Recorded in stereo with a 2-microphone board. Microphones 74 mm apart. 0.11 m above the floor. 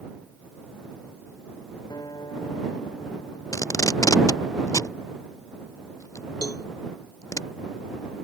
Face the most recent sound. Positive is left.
turn(degrees=60)  # may be behind; listen again after turning